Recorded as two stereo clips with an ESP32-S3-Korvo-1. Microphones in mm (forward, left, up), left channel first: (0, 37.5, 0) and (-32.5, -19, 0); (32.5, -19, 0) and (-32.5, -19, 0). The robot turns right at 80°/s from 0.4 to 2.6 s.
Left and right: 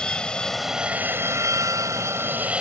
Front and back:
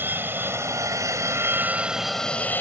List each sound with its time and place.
0.0 s an aircraft: 135° left; by 2.6 s 50° right